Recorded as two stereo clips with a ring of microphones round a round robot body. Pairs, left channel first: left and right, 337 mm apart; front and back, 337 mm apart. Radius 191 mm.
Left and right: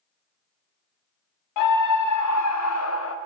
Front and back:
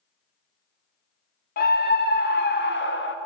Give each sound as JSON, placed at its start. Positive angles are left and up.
{"t": 1.6, "sound": "a scream", "azimuth_deg": 65, "distance_m": 1.9}